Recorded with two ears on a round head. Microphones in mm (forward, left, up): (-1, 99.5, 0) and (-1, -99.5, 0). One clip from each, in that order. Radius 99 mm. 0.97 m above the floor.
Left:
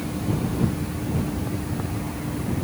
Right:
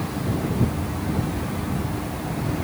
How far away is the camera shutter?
No camera shutter in this recording.